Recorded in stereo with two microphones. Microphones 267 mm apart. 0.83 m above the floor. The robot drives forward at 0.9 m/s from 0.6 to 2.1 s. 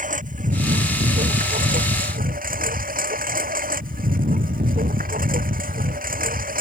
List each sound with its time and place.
0.0 s a lawn mower: 30° right (ahead or behind)